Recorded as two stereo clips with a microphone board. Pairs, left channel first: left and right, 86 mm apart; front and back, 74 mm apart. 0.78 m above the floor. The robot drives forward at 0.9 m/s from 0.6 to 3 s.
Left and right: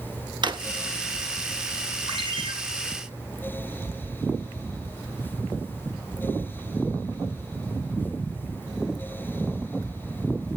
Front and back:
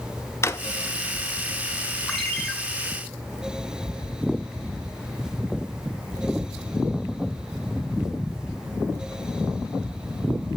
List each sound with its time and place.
0.4 s a drawer: 55° right, 1.1 m
2.1 s a ringtone: 85° right, 3 m; by 2.5 s 90° right, 3 m